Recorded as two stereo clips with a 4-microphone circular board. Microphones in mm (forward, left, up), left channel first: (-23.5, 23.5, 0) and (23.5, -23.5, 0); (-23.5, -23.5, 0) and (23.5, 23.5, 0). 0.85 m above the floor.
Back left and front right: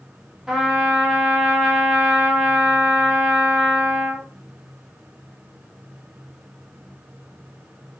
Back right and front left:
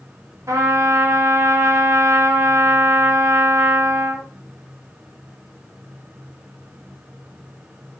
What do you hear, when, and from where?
0.5 s a trumpet: 35° left, 0.9 m